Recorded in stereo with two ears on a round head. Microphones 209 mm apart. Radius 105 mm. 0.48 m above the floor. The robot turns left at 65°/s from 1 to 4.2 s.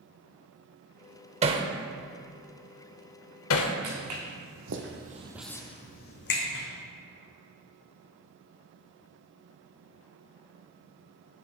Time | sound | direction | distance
1.4 | hammering | 30° right (ahead or behind) | 0.7 m
3.8 | footsteps | 70° right (ahead or behind) | 2.5 m